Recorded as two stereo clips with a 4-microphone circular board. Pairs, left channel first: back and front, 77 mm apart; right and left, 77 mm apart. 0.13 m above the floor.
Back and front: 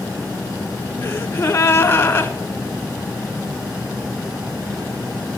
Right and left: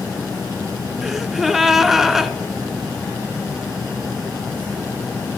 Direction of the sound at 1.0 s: 170° left.